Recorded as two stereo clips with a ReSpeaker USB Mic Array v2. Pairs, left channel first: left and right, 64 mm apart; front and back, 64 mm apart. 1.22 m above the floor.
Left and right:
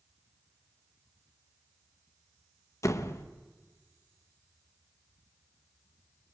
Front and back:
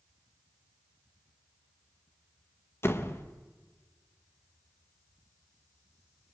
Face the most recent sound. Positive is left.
turn(degrees=50)